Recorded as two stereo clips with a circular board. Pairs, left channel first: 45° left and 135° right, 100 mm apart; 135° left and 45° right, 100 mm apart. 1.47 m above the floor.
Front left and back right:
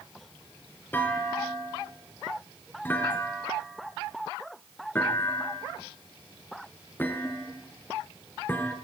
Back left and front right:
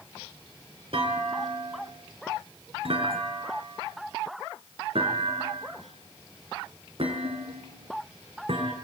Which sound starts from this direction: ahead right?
A clunk, at 0.9 s.